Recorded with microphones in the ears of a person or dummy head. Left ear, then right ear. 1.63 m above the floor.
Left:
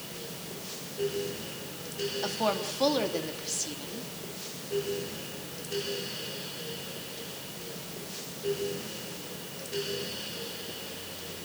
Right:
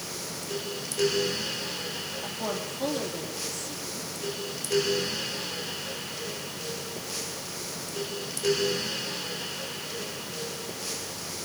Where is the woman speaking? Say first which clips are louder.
Left 5 dB; 40° left (ahead or behind), 3 m.